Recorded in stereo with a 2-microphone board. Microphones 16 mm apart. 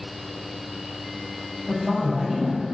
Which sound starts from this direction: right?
A man speaking, at 1.7 s.